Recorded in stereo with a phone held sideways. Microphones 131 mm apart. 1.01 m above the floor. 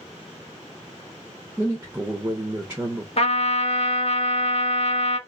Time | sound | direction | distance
1.6 | a man speaking | 15° right (ahead or behind) | 0.5 m
3.2 | a trumpet | 50° left (ahead or behind) | 0.7 m